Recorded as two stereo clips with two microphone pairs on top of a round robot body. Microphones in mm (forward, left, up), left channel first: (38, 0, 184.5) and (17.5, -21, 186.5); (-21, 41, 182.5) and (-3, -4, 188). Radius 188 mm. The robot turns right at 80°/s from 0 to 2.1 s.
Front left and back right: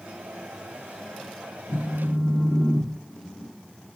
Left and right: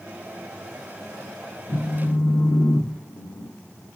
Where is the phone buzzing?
60° left, 0.7 m; by 3.5 s 90° left, 0.7 m.